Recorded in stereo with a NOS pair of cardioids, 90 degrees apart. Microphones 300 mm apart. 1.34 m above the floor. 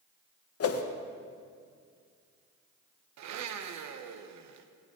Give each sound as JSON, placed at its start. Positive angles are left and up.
{"t": 0.6, "sound": "a whoosh", "azimuth_deg": 50, "distance_m": 1.3}
{"t": 3.2, "sound": "a blender", "azimuth_deg": -65, "distance_m": 1.2}